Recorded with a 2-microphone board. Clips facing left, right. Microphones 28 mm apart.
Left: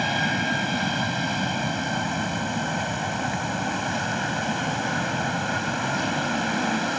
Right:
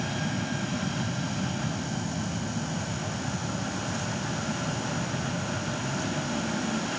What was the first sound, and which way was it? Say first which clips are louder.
An aircraft: left 8 dB; 45° left (ahead or behind).